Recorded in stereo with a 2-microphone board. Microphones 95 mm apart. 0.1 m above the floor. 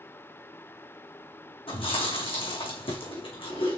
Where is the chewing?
70° left (ahead or behind), 3 m.